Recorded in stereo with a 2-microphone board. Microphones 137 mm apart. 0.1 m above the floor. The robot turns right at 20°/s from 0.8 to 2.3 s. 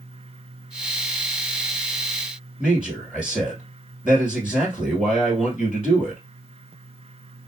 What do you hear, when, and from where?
2.6 s a man speaking: 5° right (ahead or behind), 1.7 m